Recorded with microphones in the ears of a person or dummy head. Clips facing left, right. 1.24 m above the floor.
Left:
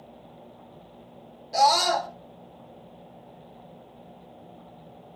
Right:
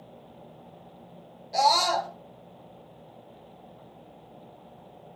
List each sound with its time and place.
1.5 s a scream: 10° left (ahead or behind), 3 m